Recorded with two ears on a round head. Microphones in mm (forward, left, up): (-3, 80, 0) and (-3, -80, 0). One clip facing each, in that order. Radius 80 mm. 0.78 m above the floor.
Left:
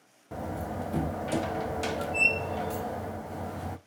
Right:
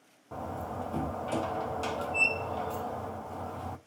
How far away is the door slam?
About 0.5 m.